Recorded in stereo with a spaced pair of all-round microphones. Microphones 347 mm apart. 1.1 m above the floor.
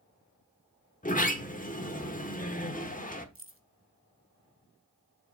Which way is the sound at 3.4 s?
40° right (ahead or behind).